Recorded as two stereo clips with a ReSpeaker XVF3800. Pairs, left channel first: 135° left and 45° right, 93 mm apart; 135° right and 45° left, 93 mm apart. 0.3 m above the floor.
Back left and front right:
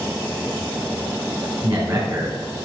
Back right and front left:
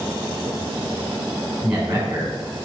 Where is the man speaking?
25° right, 3 m.